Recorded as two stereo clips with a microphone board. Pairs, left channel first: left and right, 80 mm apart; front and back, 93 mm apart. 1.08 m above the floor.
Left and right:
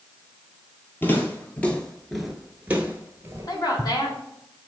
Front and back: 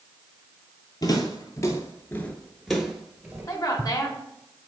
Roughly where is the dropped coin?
No dropped coin in this recording.